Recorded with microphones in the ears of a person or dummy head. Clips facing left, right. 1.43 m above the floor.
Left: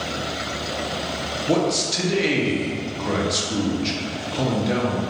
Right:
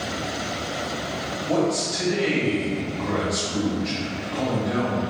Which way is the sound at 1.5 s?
45° left (ahead or behind).